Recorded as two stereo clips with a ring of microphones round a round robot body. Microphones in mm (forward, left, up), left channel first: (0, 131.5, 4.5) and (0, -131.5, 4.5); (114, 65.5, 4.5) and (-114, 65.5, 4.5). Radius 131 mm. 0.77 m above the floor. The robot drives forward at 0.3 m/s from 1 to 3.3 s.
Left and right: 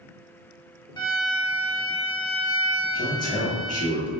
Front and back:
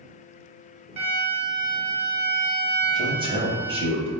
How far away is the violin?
About 1.0 m.